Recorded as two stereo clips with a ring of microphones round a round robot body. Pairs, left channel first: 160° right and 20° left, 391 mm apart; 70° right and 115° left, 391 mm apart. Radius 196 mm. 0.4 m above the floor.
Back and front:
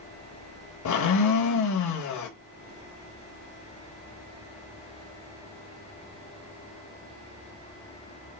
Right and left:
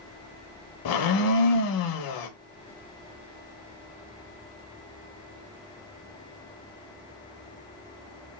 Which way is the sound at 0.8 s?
110° right.